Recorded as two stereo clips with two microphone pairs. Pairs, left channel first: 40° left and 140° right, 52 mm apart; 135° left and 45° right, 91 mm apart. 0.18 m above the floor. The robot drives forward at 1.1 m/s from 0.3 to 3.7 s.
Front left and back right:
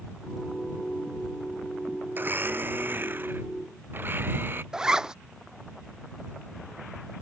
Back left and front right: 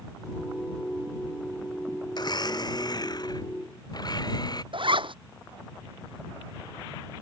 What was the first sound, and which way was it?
A blender, 175° left.